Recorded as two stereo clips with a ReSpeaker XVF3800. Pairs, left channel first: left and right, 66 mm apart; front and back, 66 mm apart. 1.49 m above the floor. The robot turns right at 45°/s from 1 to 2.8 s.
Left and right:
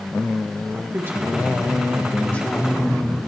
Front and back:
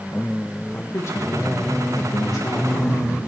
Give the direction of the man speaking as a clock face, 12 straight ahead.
1 o'clock.